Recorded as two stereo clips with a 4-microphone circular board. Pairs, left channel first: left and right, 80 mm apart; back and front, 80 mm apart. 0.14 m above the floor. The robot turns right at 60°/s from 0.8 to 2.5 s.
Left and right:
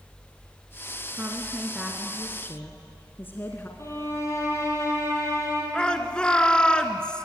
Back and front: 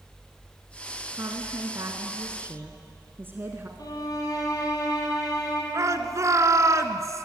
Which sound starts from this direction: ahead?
A shout, at 5.7 s.